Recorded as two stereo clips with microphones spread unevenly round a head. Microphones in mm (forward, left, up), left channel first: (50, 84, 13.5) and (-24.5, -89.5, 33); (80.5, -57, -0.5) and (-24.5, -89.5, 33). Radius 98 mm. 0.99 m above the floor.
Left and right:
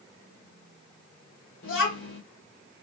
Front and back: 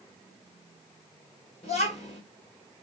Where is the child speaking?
65° left, 2 m.